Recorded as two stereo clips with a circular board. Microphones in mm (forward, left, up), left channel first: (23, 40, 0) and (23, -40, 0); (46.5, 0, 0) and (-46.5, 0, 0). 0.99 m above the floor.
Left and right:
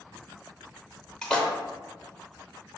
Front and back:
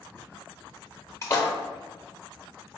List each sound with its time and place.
1.2 s a splash: 20° left, 0.8 m